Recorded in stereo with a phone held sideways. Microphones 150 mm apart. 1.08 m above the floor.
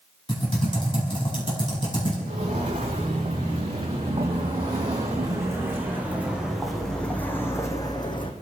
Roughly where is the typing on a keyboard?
Left.